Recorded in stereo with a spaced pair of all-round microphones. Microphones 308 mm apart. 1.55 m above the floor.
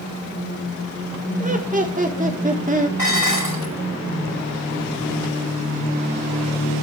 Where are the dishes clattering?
85° left, 7.5 m.